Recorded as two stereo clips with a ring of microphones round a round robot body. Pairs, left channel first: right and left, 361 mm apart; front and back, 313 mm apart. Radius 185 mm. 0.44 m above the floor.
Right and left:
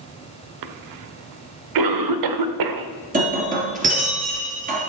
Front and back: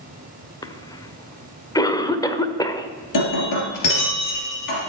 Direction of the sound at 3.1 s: 20° left.